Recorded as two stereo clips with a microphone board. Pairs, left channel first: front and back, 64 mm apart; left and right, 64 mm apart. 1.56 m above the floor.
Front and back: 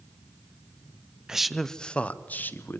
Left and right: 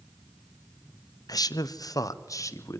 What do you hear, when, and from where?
1.3 s a man speaking: 100° left, 0.7 m; by 2.8 s 55° left, 1.4 m